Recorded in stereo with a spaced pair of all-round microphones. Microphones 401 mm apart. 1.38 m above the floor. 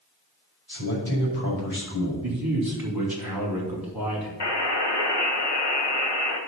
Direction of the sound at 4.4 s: 80° left.